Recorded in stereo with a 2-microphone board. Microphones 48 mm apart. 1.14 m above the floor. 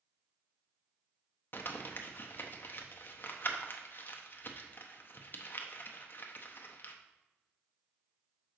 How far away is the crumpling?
About 0.7 m.